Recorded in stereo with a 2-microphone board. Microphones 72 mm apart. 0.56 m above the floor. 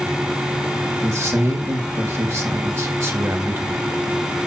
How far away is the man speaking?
About 3.5 m.